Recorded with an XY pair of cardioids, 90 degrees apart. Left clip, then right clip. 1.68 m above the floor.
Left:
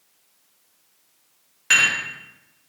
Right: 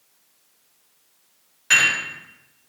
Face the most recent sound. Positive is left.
turn(degrees=45)